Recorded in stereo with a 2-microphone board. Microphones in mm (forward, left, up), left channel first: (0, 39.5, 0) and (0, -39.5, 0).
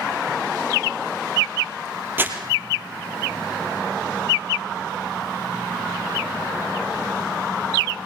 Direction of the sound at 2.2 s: 25° right (ahead or behind).